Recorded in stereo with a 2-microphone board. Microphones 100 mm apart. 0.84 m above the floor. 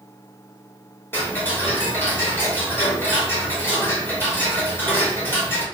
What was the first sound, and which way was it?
Ticking, 20° left (ahead or behind).